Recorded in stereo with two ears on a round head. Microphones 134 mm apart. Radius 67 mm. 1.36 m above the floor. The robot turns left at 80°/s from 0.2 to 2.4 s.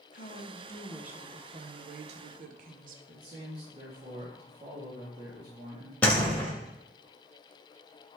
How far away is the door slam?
About 1.7 m.